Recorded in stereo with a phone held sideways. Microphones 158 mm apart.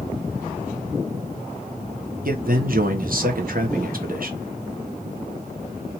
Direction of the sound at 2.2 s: 65° right (ahead or behind).